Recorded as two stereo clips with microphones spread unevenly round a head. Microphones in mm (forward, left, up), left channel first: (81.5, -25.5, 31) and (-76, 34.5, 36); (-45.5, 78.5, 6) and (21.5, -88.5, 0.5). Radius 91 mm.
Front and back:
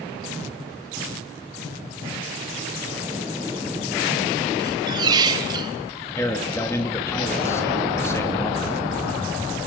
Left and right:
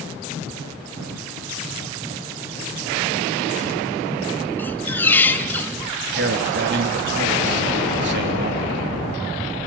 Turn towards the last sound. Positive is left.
turn(degrees=-95)